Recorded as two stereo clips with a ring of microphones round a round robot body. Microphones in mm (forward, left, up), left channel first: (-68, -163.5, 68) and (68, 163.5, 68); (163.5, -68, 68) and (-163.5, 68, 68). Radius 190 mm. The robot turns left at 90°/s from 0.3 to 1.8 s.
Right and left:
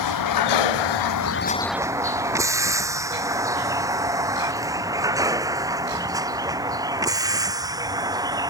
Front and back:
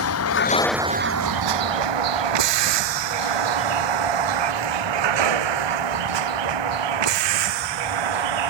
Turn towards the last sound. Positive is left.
turn(degrees=150)